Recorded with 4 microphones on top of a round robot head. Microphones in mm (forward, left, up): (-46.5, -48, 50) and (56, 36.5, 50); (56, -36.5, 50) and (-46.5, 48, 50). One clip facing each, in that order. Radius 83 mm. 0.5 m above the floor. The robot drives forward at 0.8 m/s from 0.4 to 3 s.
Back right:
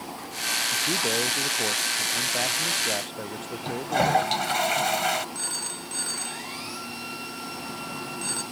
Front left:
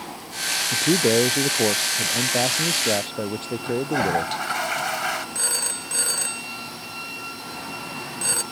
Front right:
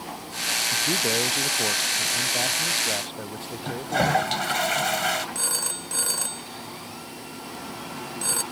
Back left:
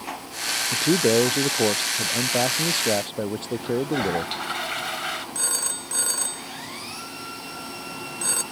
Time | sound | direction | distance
0.7 | a man speaking | 90° left | ?
3.6 | a toilet flushing | 80° right | ?
5.3 | a phone ringing | 45° left | ?